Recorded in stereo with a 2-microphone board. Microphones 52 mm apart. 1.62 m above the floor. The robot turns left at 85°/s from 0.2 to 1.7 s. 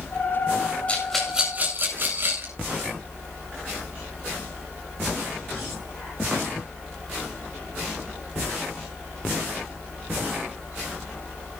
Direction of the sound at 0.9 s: 30° left (ahead or behind).